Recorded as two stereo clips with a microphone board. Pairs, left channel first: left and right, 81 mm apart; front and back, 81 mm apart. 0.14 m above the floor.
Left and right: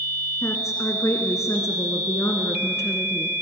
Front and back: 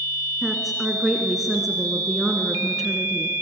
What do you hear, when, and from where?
0.4 s a woman speaking: 95° left, 1.7 m